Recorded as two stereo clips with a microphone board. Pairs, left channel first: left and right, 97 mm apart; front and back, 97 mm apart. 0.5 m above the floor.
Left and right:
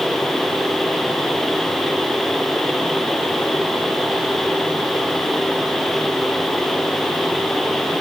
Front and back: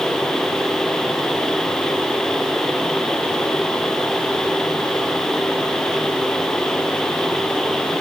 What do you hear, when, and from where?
Only background noise.